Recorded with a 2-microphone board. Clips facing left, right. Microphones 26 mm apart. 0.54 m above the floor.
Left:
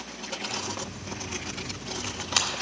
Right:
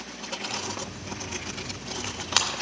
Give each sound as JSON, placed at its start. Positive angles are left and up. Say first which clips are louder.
{"t": 0.5, "sound": "tearing paper", "louder": "even", "side_deg": -30, "distance_m": 1.9}